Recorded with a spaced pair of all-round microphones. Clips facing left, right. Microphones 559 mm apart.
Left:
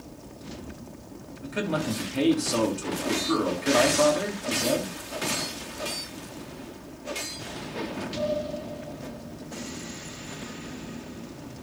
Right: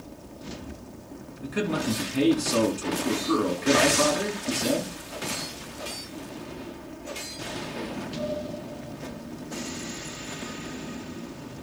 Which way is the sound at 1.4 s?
20° right (ahead or behind).